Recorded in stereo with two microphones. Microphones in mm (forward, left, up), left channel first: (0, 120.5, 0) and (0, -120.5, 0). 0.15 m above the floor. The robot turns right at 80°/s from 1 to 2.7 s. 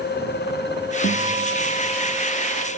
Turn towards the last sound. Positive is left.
turn(degrees=180)